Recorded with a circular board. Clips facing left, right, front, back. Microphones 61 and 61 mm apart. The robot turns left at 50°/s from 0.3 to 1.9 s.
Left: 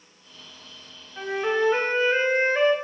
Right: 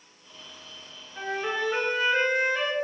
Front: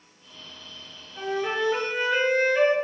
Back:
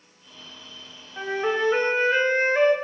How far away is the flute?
About 0.6 m.